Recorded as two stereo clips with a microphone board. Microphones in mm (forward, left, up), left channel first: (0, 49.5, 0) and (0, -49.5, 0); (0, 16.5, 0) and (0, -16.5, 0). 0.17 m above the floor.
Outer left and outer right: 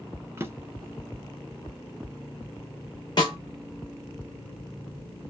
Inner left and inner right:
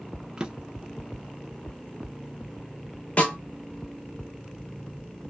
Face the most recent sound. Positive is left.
turn(degrees=45)  # may be behind; listen again after turning